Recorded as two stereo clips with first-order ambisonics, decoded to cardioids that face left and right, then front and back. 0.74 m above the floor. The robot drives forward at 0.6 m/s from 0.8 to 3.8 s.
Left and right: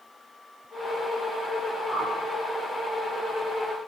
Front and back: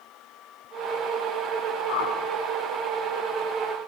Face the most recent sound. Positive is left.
turn(degrees=20)